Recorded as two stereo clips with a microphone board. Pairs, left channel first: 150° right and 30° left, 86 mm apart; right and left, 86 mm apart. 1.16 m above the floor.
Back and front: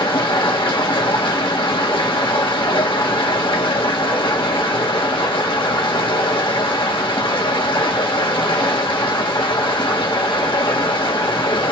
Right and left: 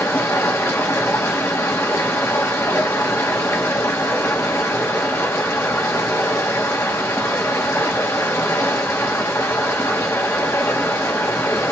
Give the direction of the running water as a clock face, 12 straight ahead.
5 o'clock.